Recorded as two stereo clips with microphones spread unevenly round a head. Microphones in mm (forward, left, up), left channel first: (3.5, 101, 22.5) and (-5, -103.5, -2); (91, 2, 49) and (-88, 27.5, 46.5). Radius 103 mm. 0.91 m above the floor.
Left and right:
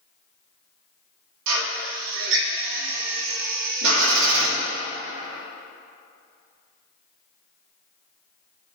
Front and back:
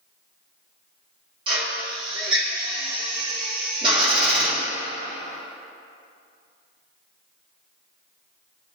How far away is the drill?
About 1.7 m.